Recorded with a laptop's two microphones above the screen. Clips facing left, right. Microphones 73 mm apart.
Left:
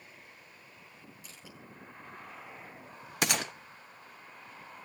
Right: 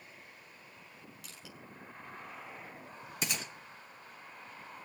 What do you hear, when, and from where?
1.2 s crushing: 80° right, 5.5 m
3.2 s a gunshot: 70° left (ahead or behind), 0.6 m